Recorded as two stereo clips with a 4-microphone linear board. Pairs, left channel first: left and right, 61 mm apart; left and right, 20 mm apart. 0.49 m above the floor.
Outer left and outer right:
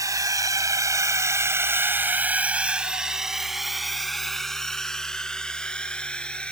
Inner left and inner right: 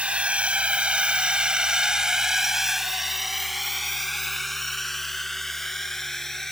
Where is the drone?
70° right (ahead or behind); by 6.5 s 20° left (ahead or behind).